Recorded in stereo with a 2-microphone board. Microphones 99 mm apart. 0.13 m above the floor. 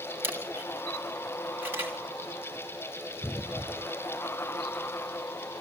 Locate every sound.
0.2 s a camera shutter: 20° right (ahead or behind), 3 m